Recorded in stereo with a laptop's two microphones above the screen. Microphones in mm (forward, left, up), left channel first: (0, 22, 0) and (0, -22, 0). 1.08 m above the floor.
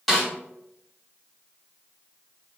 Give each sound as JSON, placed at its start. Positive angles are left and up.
{"t": 0.1, "sound": "a snare drum", "side_deg": 0, "distance_m": 1.4}